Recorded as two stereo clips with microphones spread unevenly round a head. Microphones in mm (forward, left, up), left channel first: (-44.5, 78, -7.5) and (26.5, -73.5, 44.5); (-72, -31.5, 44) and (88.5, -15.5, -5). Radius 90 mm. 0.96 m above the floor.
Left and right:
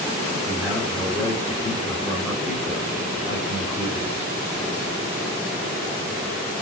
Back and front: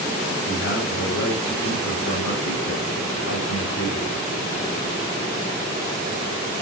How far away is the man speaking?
About 1.9 m.